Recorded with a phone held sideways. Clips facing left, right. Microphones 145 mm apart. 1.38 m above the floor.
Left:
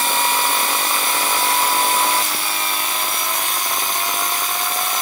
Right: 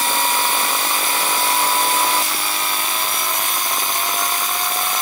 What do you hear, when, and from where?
Only background noise.